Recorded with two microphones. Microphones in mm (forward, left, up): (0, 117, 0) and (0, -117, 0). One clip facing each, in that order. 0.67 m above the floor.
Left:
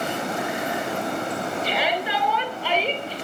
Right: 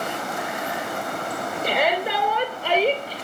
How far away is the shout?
About 2.5 m.